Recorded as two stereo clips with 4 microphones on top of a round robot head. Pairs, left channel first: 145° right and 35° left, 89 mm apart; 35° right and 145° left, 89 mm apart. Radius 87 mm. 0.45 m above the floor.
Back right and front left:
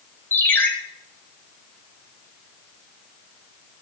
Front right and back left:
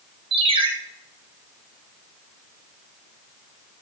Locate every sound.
0.3 s a ringtone: 150° left, 1.9 m